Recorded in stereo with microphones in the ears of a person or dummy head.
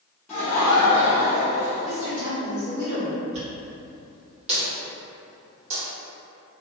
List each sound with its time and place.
0.3 s laughter: 5° left (ahead or behind), 0.9 m
1.8 s a woman speaking: 30° right (ahead or behind), 1.4 m
3.3 s a dropped coin: 40° right (ahead or behind), 1.8 m